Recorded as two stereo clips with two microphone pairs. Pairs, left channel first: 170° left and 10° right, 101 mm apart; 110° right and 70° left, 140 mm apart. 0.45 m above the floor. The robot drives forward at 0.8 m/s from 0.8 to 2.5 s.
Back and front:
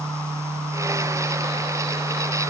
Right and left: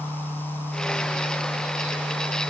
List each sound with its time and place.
Only background noise.